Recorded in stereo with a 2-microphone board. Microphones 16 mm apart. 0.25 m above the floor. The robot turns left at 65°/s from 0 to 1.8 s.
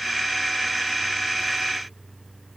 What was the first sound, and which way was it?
Only background noise.